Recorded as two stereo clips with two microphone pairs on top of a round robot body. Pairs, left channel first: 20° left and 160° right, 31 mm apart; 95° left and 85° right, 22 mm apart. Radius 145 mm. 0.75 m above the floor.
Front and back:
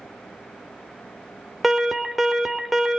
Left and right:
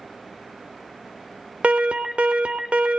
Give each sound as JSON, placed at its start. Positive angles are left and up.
{"t": 1.6, "sound": "an alarm", "azimuth_deg": -70, "distance_m": 2.5}